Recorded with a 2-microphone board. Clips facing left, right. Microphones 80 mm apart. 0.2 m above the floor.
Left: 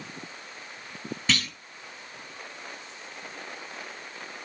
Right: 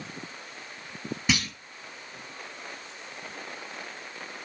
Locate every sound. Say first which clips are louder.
1.3 s a clunk: right 1 dB; 15° right (ahead or behind), 1.0 m